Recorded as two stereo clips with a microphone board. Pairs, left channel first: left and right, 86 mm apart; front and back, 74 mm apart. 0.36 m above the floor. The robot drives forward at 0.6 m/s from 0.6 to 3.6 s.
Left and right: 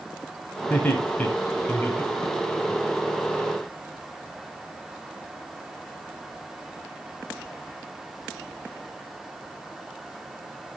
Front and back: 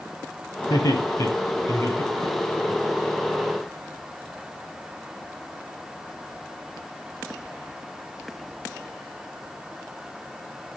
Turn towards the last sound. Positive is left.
turn(degrees=55)